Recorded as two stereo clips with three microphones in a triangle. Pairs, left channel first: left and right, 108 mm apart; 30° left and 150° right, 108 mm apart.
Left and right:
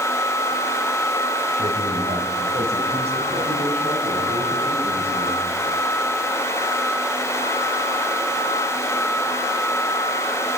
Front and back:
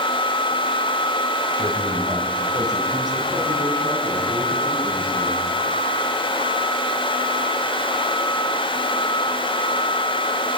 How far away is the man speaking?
About 3.5 m.